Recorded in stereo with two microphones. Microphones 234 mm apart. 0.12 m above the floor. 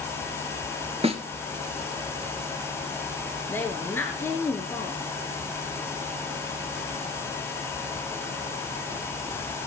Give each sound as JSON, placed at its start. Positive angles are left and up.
{"t": 1.0, "sound": "a snare drum", "side_deg": -25, "distance_m": 1.6}
{"t": 3.5, "sound": "a woman speaking", "side_deg": 10, "distance_m": 1.7}